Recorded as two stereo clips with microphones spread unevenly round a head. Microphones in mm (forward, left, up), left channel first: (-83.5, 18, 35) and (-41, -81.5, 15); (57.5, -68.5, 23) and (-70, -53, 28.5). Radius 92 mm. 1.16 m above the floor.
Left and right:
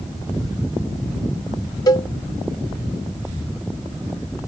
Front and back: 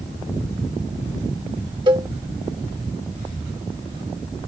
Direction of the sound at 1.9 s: 125° left.